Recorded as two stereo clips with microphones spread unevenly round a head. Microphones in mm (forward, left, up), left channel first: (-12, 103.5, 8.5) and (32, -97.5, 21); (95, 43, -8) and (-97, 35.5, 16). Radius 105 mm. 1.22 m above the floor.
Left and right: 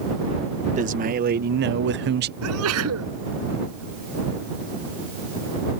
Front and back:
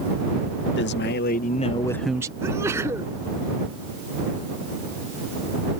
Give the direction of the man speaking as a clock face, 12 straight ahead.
1 o'clock.